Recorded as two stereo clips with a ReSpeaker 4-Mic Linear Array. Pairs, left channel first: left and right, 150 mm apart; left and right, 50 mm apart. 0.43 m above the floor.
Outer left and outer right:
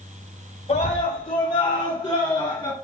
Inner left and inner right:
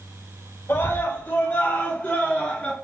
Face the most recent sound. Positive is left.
turn(degrees=30)  # may be behind; listen again after turning